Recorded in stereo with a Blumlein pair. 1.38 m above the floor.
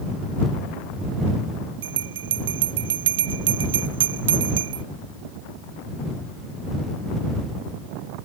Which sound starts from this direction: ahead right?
A bell, at 1.8 s.